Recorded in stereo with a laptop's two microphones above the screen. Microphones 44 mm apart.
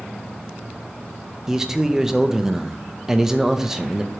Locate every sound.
1.5 s a man speaking: 10° right (ahead or behind), 0.5 m